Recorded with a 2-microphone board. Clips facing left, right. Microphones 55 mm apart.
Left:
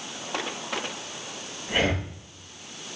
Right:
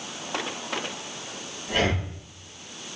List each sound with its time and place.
1.7 s breathing: 15° left (ahead or behind), 6 m